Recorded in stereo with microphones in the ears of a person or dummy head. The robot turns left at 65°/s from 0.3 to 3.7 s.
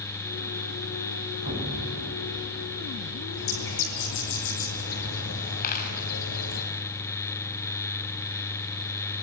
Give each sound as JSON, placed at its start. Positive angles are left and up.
{"t": 1.4, "sound": "an explosion", "azimuth_deg": -145, "distance_m": 6.0}
{"t": 3.3, "sound": "a bird", "side_deg": 70, "distance_m": 7.5}
{"t": 5.6, "sound": "a dropped coin", "side_deg": 55, "distance_m": 6.0}